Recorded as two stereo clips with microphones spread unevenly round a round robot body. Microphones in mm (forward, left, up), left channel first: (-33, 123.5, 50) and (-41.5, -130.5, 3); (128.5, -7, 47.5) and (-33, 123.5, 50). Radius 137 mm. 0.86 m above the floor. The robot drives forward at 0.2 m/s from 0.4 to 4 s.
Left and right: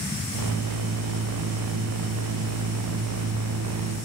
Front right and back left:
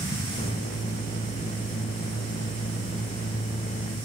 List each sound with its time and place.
Only background noise.